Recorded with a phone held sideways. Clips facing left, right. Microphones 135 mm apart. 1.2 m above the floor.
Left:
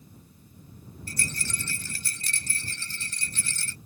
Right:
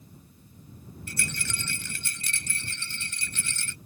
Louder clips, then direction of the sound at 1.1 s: Even; 35° left (ahead or behind).